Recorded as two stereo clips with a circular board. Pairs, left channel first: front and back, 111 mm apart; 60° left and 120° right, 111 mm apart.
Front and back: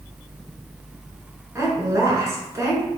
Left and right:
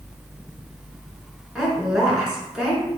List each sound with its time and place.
1.6 s a woman speaking: 160° left, 1.1 m